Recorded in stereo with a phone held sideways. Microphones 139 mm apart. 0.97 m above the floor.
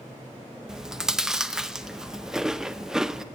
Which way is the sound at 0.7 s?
5° right (ahead or behind).